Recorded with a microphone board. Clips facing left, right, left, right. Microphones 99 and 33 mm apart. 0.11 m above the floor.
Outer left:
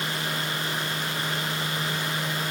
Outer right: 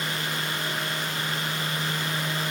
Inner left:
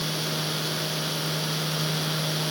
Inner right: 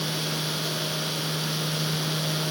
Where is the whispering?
I don't hear whispering.